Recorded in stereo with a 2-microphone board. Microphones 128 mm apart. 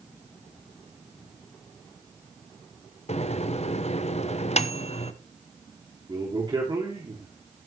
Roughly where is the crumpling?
No crumpling in this recording.